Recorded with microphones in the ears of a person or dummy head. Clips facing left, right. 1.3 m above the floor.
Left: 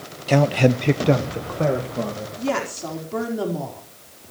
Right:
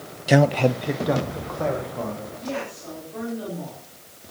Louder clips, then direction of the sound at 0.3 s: Left 1 dB; 15° right (ahead or behind).